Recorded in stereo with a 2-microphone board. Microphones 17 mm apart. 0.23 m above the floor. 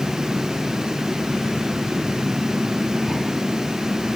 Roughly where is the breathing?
No breathing in this recording.